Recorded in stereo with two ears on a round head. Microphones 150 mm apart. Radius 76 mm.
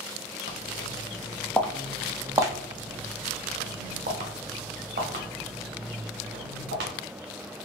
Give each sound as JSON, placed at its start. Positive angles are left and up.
{"t": 0.5, "sound": "footsteps", "side_deg": 45, "distance_m": 0.9}